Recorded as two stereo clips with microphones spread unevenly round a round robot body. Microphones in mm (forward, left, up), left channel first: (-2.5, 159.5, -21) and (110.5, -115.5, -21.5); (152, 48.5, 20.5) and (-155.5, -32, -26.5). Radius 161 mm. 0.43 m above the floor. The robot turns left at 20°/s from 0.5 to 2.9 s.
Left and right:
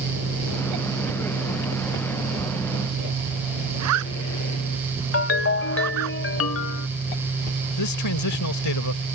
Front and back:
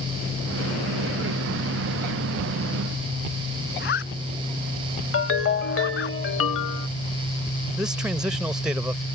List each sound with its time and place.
3.8 s a zipper: 40° right
5.1 s a ringtone: 70° left
7.8 s a man speaking: 115° left